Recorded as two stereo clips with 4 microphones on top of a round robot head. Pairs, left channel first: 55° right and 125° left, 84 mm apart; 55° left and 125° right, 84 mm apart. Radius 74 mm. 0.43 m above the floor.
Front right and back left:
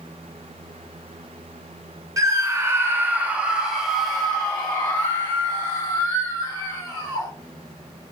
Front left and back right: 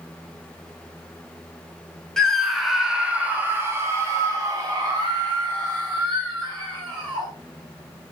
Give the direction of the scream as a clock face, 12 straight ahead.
7 o'clock.